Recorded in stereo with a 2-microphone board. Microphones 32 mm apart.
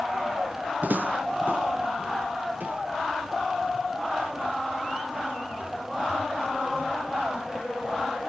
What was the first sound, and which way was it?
Footsteps, 55° right (ahead or behind).